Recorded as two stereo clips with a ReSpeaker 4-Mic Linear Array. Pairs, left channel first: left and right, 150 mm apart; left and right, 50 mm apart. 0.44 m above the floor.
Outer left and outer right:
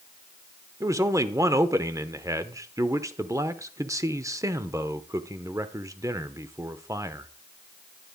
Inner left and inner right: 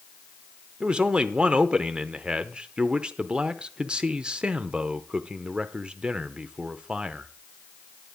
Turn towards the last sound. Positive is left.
turn(degrees=-20)  # may be behind; listen again after turning